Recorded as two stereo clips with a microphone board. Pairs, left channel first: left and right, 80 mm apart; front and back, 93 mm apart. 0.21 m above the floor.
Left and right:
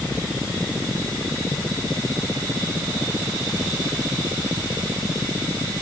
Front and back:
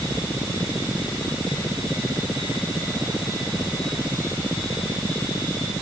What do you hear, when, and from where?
Only background noise.